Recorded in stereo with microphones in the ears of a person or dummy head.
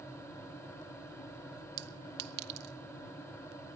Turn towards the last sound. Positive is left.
turn(degrees=-55)  # may be behind; listen again after turning